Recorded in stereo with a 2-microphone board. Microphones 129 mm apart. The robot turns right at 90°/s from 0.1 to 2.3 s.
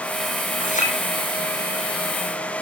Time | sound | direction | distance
0.6 | a clink | 80° left | 6 m